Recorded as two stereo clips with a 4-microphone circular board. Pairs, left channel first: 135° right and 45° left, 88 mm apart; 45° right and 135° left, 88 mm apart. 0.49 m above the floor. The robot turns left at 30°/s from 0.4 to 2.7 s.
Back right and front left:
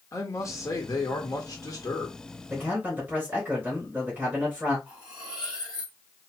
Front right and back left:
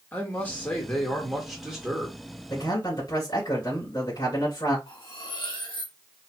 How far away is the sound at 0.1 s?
About 1.4 m.